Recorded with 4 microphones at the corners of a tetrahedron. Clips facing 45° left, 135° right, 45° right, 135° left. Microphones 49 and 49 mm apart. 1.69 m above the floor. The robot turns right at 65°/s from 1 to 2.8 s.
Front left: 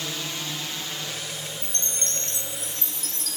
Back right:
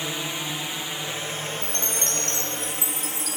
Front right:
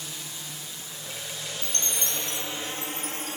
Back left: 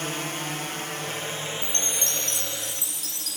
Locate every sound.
0.0 s a drone: 160° left; by 3.4 s 90° right
1.6 s a chime: 70° left; by 3.4 s 145° left